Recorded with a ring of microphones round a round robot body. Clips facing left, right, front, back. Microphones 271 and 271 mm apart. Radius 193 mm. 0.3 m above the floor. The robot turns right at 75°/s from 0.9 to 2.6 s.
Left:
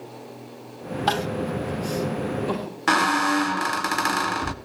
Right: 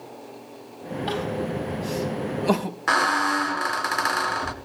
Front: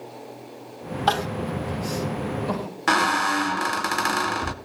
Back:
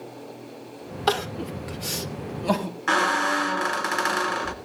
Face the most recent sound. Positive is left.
turn(degrees=40)